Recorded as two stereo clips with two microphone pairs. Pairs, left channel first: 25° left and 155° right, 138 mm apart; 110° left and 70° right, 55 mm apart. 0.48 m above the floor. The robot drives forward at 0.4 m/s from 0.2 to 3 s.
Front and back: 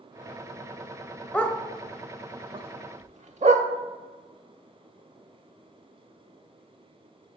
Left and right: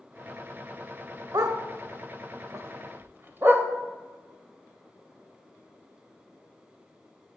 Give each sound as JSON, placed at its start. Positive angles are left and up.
{"t": 1.3, "sound": "a dog barking", "azimuth_deg": -55, "distance_m": 0.7}